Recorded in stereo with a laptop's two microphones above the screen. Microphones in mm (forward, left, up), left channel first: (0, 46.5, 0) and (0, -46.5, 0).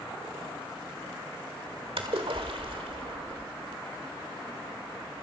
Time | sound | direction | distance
2.0 | a splash | 85° right | 1.8 m